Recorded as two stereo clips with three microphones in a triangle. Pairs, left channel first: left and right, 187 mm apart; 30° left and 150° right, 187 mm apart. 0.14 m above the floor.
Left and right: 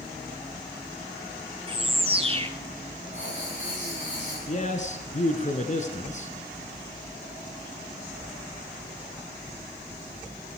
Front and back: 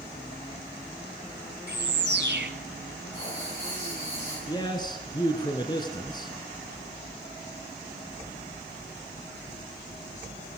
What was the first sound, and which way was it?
A bird, 150° right.